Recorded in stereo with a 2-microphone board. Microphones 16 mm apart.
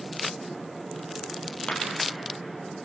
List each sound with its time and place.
1.7 s a clap: 75° left (ahead or behind), 4 m